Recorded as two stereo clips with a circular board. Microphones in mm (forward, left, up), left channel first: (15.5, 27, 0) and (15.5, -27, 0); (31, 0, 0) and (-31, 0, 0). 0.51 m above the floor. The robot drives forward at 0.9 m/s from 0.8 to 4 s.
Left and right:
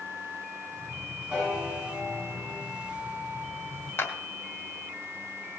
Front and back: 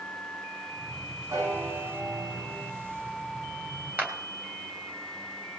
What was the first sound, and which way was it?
A piano, 165° right.